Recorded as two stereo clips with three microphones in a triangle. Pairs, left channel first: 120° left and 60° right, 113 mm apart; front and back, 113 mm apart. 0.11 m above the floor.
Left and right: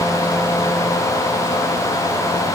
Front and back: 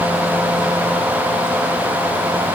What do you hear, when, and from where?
Only background noise.